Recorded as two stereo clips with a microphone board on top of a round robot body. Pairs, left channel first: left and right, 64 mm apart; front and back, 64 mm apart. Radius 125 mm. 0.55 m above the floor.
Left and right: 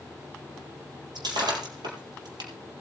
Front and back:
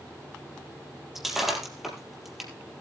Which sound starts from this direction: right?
Breaking glass, at 1.1 s.